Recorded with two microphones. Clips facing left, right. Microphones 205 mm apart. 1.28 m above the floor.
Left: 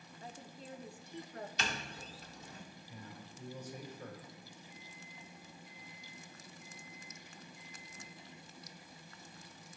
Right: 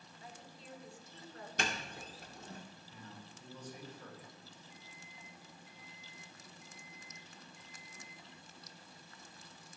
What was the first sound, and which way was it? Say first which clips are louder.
A woman speaking: left 4 dB; 40° left (ahead or behind).